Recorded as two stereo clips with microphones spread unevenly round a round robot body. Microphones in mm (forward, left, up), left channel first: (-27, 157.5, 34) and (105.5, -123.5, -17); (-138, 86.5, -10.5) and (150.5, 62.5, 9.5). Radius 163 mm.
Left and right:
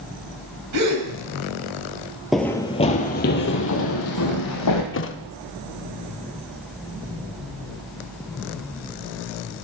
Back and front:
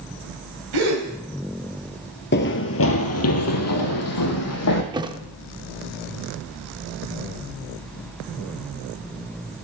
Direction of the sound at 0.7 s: 30° right.